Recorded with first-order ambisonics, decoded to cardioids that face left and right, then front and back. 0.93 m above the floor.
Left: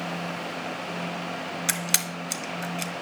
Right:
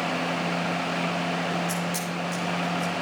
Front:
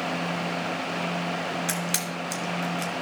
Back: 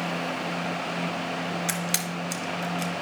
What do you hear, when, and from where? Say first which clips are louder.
1.7 s a camera shutter: left 2 dB, even; 105° left, 1.3 m